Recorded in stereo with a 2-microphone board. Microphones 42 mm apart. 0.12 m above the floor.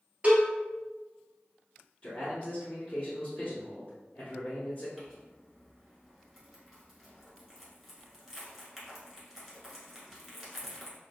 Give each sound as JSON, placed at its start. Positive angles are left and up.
{"t": 0.2, "sound": "a cowbell", "side_deg": -25, "distance_m": 1.3}
{"t": 2.0, "sound": "a man speaking", "side_deg": 25, "distance_m": 1.2}
{"t": 5.0, "sound": "crumpling", "side_deg": 0, "distance_m": 1.3}